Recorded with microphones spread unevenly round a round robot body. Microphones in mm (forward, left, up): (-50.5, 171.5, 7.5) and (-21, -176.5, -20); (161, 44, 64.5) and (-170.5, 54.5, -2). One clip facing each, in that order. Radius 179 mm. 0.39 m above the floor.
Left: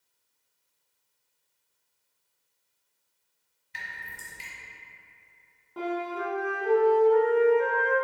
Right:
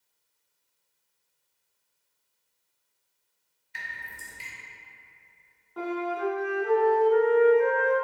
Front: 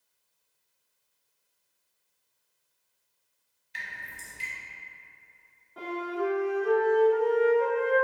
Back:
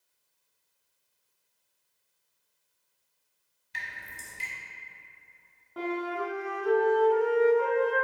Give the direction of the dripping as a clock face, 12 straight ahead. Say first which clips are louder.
Even, even; 7 o'clock.